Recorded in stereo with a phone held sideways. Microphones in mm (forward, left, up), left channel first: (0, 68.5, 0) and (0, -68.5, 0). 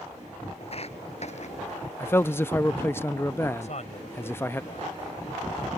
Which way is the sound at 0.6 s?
50° left (ahead or behind).